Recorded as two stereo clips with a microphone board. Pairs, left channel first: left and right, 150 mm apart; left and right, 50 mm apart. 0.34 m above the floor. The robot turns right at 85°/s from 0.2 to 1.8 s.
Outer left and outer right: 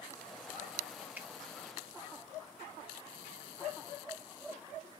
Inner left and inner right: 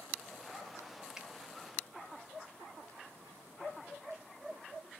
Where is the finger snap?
10° right (ahead or behind), 0.7 m; by 1.3 s 5° right (ahead or behind), 0.7 m.